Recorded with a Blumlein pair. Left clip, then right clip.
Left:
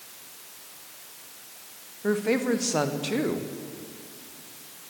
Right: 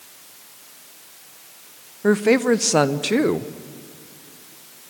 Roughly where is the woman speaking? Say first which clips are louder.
Right 8 dB; ahead right.